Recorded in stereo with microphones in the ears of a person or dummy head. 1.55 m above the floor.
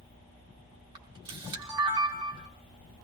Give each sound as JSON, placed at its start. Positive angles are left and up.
{"t": 0.9, "sound": "a camera shutter", "side_deg": -25, "distance_m": 0.9}